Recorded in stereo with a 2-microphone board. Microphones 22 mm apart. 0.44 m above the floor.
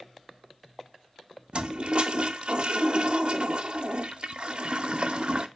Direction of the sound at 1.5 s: 55° right (ahead or behind).